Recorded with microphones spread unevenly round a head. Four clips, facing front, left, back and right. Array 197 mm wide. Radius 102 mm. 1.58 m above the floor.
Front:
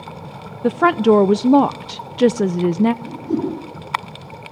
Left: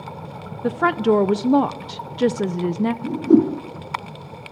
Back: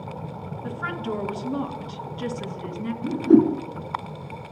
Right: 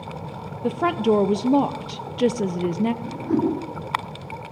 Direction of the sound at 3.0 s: 145° left.